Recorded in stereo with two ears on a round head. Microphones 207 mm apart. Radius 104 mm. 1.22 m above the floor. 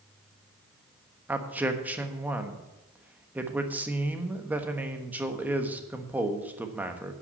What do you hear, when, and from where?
1.3 s a man speaking: 10° right (ahead or behind), 1.2 m